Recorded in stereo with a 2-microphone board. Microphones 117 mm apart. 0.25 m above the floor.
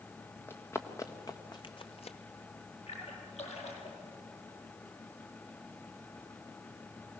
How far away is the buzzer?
No buzzer in this recording.